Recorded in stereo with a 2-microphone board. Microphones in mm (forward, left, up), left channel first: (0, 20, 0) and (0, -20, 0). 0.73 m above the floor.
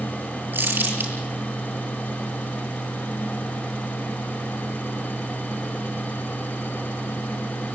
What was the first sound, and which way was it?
Crumpling, 55° right (ahead or behind).